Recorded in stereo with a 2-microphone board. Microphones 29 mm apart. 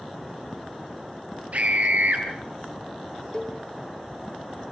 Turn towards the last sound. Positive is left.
turn(degrees=25)  # may be behind; listen again after turning